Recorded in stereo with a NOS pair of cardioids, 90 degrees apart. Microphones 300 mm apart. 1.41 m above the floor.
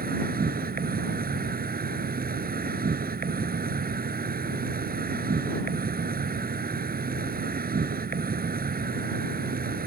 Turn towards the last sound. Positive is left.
turn(degrees=-30)